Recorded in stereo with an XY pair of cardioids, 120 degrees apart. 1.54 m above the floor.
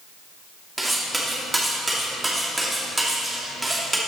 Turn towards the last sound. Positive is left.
turn(degrees=-10)